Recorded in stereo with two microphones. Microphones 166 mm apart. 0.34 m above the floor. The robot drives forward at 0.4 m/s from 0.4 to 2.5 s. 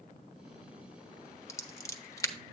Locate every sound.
1.5 s scissors: 20° left (ahead or behind), 1.0 m